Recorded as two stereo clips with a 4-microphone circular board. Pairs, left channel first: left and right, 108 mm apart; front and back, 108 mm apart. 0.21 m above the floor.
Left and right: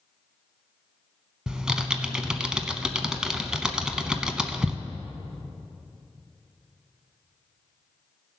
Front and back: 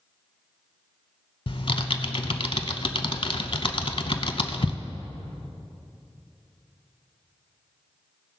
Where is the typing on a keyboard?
10° right, 0.6 m.